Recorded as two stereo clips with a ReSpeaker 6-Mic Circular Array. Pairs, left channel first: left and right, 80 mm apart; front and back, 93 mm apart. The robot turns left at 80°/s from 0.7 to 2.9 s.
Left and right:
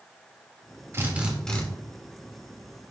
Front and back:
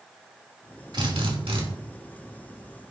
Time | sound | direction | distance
0.9 | a drill | 145° right | 3 m